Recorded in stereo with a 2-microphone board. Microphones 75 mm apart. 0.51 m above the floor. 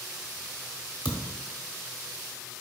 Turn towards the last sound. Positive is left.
turn(degrees=70)  # may be behind; listen again after turning